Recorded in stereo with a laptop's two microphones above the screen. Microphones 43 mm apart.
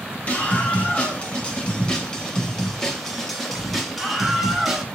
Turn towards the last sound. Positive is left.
turn(degrees=-5)  # may be behind; listen again after turning